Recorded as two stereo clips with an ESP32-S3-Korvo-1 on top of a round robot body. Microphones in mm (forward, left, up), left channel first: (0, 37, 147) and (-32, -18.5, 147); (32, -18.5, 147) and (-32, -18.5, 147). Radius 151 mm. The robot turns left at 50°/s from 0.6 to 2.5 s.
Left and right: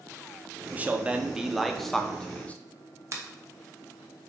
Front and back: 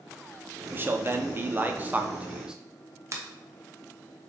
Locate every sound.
0.7 s a man speaking: 160° right, 0.8 m; by 2.5 s 110° left, 0.8 m
3.1 s a finger snap: 150° right, 1.1 m